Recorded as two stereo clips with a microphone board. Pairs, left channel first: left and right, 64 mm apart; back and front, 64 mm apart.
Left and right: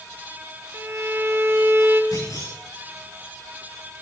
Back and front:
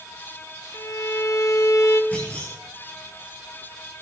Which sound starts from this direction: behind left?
A clunk, at 2.1 s.